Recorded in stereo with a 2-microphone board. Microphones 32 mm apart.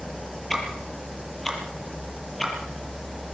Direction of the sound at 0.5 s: 5° left (ahead or behind).